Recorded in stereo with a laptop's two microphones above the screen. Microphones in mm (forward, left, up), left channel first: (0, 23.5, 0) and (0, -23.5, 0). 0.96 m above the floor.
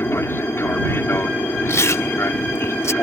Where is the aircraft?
60° left (ahead or behind).